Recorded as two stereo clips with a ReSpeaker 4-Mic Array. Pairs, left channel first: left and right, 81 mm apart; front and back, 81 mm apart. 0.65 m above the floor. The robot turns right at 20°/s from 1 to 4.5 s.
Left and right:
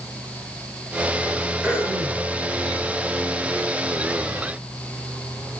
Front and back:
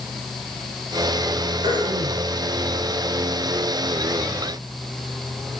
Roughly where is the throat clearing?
Behind.